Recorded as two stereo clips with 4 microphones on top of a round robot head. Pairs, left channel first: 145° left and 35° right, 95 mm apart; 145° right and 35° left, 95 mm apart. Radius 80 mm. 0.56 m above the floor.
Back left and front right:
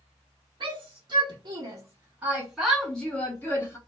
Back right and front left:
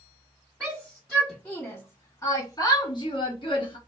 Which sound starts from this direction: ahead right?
A shout, at 0.6 s.